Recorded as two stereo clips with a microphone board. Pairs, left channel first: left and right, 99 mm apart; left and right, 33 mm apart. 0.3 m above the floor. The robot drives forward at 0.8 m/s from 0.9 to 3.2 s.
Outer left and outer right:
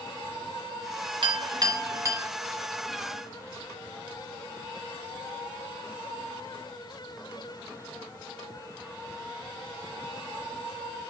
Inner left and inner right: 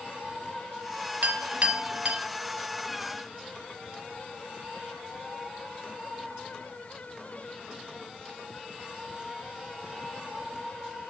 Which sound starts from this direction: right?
A clink, at 1.2 s.